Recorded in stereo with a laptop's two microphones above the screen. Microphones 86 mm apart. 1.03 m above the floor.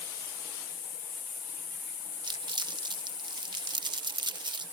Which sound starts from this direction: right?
Crumpling, at 2.2 s.